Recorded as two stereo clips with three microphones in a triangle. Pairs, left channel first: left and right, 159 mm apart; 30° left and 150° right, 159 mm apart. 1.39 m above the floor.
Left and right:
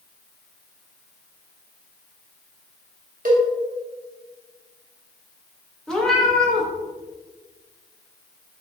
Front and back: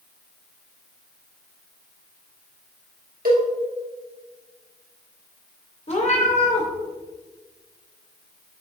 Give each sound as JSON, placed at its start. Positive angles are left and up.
{"t": 3.2, "sound": "a cowbell", "azimuth_deg": -125, "distance_m": 1.0}
{"t": 5.9, "sound": "a cat meowing", "azimuth_deg": 5, "distance_m": 0.9}